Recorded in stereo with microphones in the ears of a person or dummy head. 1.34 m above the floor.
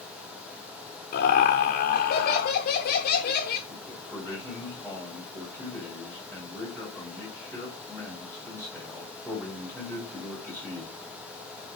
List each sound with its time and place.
1.1 s laughter: 50° left (ahead or behind), 0.9 m
3.7 s a man speaking: 10° right (ahead or behind), 2.5 m